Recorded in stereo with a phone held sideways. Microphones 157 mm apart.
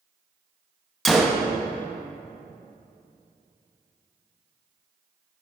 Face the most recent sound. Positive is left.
turn(degrees=0)  # may be behind; listen again after turning